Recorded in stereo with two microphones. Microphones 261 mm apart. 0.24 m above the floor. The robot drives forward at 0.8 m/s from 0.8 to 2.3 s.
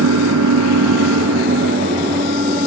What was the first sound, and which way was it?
An engine running, 80° right.